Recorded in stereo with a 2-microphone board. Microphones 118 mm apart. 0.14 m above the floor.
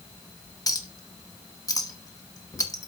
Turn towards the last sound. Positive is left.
turn(degrees=30)  # may be behind; listen again after turning